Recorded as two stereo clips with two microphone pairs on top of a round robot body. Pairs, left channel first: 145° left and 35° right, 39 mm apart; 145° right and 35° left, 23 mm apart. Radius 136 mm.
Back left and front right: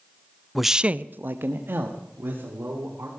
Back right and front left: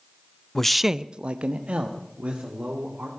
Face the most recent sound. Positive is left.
turn(degrees=5)